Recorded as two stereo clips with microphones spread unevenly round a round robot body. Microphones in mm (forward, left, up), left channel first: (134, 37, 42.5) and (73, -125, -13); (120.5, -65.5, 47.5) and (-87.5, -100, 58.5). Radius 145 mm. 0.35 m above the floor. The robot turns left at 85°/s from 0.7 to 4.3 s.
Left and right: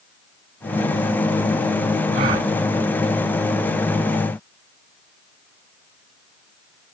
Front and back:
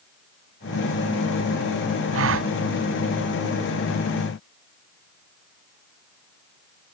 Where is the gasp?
165° right; by 2.5 s 165° left.